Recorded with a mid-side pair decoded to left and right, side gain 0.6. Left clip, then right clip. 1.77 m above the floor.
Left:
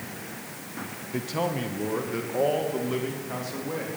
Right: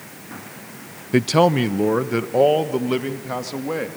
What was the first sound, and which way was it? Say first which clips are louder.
A man speaking: right 13 dB; 65° right.